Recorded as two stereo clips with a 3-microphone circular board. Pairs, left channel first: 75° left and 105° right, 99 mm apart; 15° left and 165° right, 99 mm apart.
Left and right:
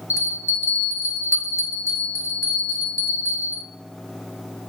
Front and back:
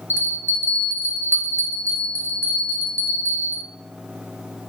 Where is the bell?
130° left, 1.3 m.